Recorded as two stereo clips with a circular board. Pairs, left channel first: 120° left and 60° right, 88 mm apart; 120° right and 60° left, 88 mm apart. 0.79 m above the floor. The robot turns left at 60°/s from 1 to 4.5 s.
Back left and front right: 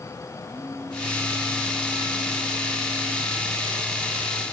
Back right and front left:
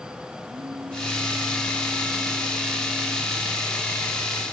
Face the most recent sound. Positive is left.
turn(degrees=-145)